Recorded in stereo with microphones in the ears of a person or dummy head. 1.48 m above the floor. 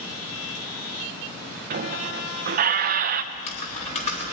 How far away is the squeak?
About 0.7 m.